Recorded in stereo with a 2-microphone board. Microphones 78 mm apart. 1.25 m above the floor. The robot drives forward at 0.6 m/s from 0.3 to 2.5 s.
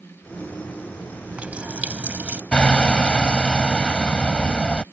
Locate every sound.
1.1 s a running tap: 15° right (ahead or behind); by 2.4 s 20° right (ahead or behind)
2.5 s hammering: 10° left (ahead or behind)